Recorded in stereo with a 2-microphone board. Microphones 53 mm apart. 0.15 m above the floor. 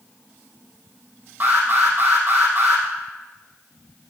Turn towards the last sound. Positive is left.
turn(degrees=-35)  # may be behind; listen again after turning